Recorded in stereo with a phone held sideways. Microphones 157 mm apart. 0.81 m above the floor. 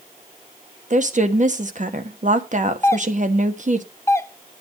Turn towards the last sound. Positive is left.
turn(degrees=20)  # may be behind; listen again after turning